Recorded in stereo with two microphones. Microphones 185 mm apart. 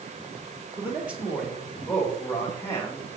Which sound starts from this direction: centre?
A man speaking, at 0.8 s.